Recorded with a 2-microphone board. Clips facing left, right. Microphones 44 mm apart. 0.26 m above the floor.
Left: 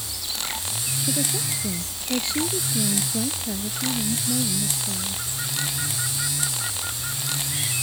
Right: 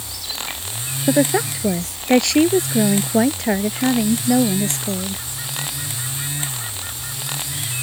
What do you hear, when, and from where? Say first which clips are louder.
1.1 s a woman speaking: right 13 dB; 70° right (ahead or behind)